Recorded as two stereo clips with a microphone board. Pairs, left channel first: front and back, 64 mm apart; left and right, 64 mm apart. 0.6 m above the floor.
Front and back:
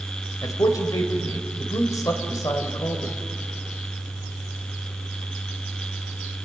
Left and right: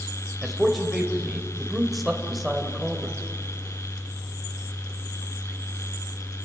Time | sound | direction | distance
0.4 | a man speaking | straight ahead | 2.5 m